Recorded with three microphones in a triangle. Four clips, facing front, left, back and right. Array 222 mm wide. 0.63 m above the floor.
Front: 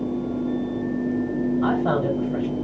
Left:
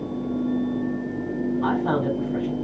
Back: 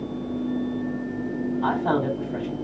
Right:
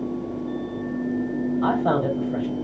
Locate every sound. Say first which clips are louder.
1.6 s a man speaking: right 2 dB, back 1 dB; 90° right, 3 m